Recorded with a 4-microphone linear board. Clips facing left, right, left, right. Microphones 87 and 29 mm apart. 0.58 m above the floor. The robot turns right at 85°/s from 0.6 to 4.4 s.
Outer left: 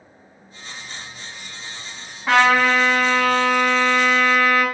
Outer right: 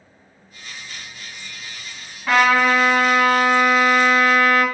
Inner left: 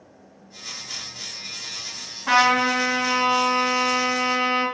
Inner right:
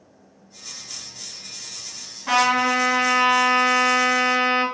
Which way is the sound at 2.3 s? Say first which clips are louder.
Even, inner left 1 dB; 160° left.